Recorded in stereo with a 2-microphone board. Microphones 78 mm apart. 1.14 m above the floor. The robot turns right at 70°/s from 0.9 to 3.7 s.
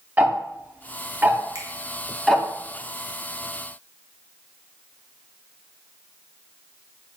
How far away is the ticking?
About 0.6 m.